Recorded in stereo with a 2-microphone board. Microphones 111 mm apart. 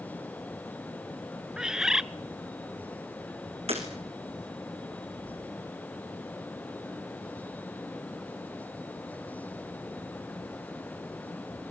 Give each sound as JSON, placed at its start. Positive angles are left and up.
{"t": 1.6, "sound": "a bird", "side_deg": -5, "distance_m": 0.6}
{"t": 3.7, "sound": "breaking glass", "side_deg": -70, "distance_m": 5.0}